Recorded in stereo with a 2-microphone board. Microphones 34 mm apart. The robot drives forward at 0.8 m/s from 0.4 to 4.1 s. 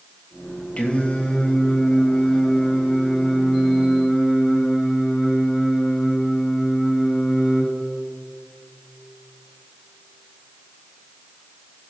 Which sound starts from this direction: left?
Singing, at 0.8 s.